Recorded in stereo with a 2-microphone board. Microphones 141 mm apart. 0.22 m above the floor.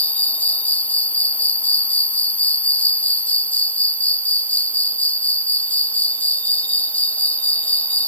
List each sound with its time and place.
0.0 s an insect: 10° left (ahead or behind)